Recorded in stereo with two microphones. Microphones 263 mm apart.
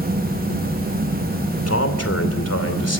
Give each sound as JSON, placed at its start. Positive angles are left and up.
{"t": 1.7, "sound": "a man speaking", "side_deg": 70, "distance_m": 2.5}